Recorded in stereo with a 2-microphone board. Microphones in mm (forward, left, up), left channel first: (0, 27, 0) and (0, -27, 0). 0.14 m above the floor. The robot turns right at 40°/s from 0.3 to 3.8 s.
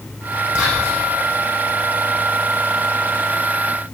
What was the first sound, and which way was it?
Whispering, 25° right (ahead or behind).